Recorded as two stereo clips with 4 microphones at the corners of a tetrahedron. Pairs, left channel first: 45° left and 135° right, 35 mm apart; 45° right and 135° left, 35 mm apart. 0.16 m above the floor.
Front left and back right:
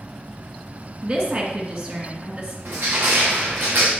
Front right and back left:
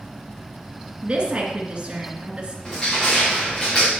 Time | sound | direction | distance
1.0 | a woman speaking | 170° right | 2.5 m
2.6 | crushing | 105° right | 3 m